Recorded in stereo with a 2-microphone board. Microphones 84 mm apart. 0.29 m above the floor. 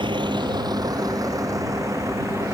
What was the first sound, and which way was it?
A vehicle, 80° right.